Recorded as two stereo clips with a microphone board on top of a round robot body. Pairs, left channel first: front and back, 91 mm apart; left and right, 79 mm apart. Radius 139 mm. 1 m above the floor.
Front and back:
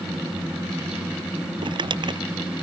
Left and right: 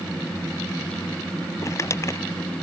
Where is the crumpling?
145° left.